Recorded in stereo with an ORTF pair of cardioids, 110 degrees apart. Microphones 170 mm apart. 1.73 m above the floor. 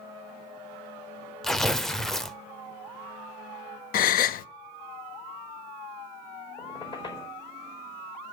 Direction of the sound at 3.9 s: 60° left.